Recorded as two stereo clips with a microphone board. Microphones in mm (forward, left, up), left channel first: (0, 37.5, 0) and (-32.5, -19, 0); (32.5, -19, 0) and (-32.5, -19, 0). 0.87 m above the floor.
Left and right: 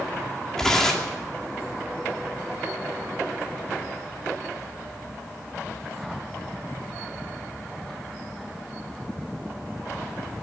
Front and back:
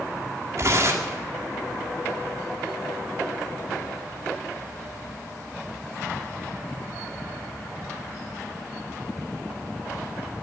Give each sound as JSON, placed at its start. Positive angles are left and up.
{"t": 0.6, "sound": "tearing paper", "azimuth_deg": 140, "distance_m": 2.0}